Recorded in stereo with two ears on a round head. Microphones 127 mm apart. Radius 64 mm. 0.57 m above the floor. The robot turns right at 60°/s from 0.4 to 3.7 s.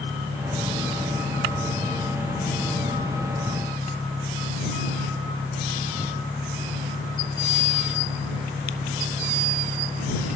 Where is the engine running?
10° right; by 10.4 s 175° right.